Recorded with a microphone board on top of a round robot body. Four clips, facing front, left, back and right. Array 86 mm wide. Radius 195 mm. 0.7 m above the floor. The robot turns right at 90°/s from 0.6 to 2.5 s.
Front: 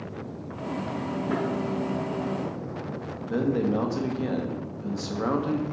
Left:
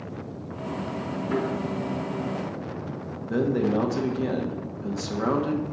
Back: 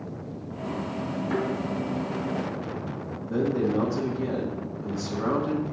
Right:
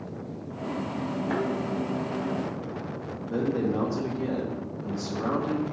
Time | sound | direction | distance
1.3 | a thud | 95° right | 3.5 m
3.3 | a man speaking | 50° left | 1.9 m